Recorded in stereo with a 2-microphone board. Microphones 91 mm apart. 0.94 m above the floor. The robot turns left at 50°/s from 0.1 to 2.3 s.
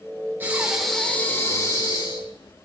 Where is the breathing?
160° right, 2.5 m; by 2.5 s 105° left, 2.5 m.